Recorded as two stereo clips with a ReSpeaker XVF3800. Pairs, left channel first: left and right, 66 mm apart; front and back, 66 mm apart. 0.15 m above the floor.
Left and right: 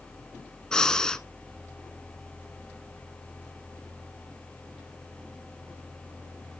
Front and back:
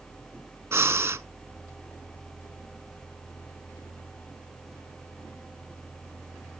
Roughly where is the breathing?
Behind.